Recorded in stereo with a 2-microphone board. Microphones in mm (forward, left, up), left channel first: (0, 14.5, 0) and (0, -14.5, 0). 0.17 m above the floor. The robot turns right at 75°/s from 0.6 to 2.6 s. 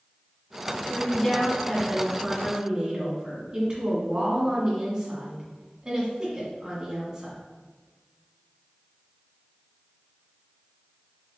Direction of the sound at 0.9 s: 15° left (ahead or behind).